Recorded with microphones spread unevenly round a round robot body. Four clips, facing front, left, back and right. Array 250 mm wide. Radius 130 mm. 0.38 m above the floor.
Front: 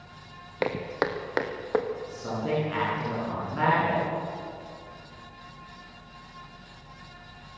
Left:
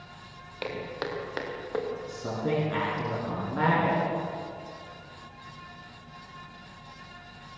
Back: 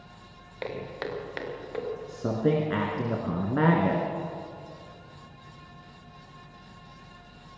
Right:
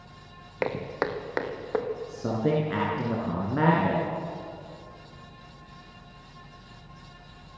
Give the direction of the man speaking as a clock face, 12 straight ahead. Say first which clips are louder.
Right 6 dB, back 9 dB; 5 o'clock.